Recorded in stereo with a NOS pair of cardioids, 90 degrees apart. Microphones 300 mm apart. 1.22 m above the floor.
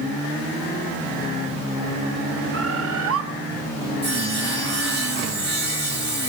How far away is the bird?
About 1.5 m.